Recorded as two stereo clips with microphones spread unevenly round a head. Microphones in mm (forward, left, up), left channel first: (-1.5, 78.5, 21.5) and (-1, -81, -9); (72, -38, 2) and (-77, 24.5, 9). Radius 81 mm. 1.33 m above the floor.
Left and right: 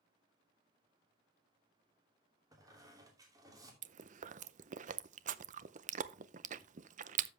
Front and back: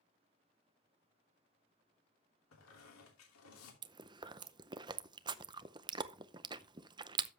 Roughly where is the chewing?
Behind right.